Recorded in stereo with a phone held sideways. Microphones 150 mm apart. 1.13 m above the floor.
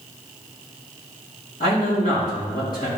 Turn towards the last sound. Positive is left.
turn(degrees=80)